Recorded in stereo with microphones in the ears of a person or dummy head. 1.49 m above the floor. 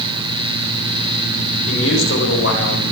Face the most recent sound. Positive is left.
turn(degrees=80)